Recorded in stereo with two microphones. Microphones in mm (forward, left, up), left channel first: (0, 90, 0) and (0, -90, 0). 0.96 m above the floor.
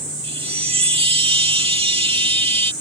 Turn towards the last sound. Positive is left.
turn(degrees=-30)  # may be behind; listen again after turning